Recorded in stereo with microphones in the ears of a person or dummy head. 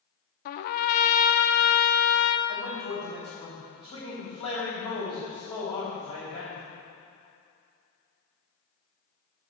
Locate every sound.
0.5 s a trumpet: 55° left (ahead or behind), 0.6 m
2.5 s a man speaking: 30° left (ahead or behind), 3.5 m